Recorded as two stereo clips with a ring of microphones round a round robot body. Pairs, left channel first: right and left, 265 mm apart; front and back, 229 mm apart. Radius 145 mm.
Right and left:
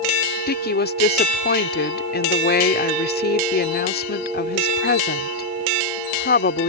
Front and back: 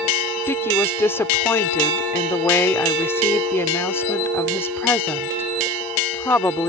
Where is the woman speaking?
75° right.